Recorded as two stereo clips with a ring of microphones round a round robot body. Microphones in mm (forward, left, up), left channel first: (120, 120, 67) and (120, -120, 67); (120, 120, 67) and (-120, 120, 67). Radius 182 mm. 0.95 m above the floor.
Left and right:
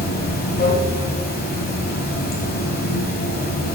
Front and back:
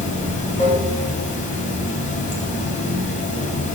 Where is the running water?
50° left, 1.1 m.